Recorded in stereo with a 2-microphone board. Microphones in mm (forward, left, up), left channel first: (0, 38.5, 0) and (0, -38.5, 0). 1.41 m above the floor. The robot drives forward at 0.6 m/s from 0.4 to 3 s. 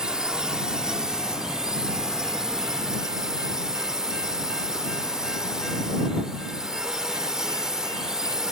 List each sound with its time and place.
0.0 s a drone: 10° right (ahead or behind); by 8.5 s 5° right (ahead or behind)